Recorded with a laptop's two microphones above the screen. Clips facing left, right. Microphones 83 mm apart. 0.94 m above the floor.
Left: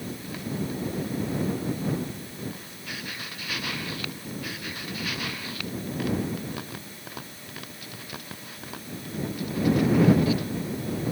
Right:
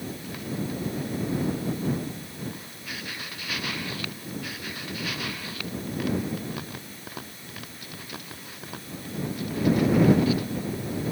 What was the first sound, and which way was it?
Only background noise.